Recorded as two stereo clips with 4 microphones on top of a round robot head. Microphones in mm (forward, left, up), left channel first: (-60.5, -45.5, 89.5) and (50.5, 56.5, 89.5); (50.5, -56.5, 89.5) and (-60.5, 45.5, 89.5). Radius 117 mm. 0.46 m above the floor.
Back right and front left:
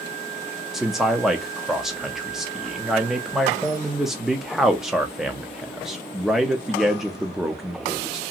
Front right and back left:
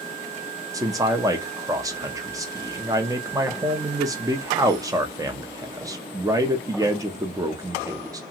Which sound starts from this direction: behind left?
A man speaking, at 0.7 s.